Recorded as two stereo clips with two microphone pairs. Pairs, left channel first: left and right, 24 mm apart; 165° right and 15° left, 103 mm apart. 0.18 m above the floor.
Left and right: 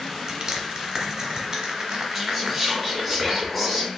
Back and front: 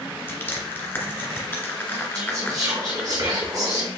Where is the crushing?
120° right, 1.0 m.